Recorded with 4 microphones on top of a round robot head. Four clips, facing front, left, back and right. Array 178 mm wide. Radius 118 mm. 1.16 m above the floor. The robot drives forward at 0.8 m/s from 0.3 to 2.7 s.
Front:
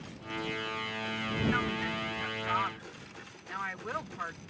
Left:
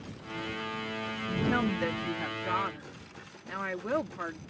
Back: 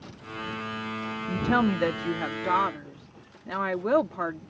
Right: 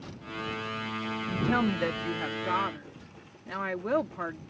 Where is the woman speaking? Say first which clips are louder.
Right 1 dB, back 8 dB; straight behind.